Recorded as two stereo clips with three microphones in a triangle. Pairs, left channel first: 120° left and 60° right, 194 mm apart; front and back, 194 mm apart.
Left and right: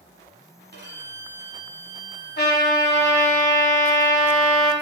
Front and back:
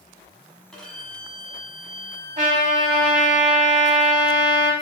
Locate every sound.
0.7 s a violin: 85° right, 1.0 m
2.4 s a trumpet: 135° left, 0.9 m